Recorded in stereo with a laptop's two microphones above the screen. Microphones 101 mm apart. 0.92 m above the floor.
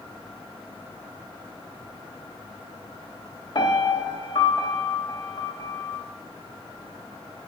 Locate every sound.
3.5 s a piano: 55° left (ahead or behind), 1.4 m